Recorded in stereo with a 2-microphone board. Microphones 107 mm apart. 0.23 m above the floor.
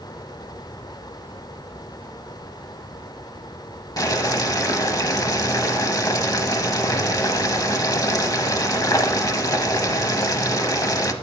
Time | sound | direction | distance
4.0 | boiling | 35° left (ahead or behind) | 0.8 m